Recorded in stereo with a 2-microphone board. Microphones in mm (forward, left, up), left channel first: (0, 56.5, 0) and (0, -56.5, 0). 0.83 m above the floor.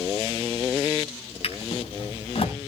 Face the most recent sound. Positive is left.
turn(degrees=60)  # may be behind; listen again after turning